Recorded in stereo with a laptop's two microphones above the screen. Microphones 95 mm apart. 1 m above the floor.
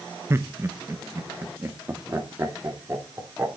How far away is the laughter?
About 0.7 m.